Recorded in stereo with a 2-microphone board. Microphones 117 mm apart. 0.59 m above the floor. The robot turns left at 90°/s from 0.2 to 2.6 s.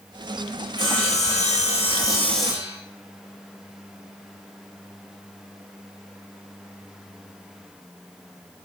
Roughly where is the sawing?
Behind left.